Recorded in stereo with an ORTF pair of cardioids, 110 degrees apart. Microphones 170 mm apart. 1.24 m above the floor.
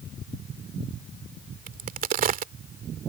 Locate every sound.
1.7 s a crack: 55° right